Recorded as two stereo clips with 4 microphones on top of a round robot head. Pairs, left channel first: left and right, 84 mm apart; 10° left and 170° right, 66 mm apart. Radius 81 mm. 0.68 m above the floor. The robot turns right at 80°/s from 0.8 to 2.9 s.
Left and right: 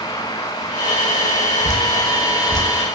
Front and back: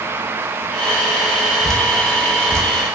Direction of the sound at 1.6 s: 90° left.